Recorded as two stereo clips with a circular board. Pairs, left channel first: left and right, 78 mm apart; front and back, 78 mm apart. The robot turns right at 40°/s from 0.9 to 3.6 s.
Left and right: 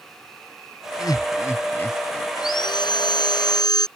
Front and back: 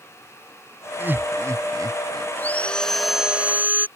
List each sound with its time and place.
1.0 s laughter: 115° left; by 2.3 s 165° left
2.4 s sawing: 65° left; by 3.9 s 115° left